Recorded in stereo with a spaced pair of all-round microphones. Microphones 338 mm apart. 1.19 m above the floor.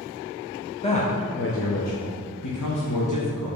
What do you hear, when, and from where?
0.8 s a man speaking: 15° left (ahead or behind), 0.7 m; by 3.6 s 60° left (ahead or behind), 1.4 m